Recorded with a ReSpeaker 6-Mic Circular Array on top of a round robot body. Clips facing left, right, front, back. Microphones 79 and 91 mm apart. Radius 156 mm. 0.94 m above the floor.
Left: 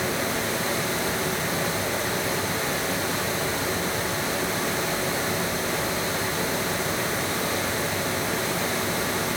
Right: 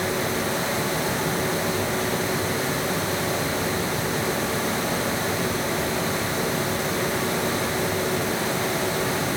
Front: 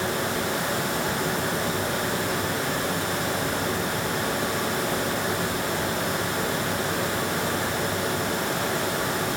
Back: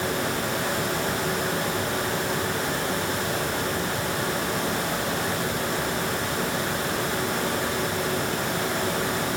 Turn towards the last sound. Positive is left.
No sound to turn to.